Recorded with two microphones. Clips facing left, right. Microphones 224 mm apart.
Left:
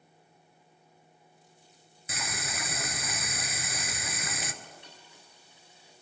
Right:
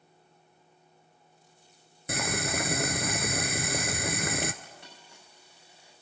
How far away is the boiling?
About 0.7 m.